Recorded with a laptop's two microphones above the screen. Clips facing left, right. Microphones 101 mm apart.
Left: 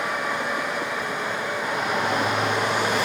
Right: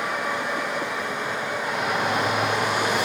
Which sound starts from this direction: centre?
A shout, at 1.6 s.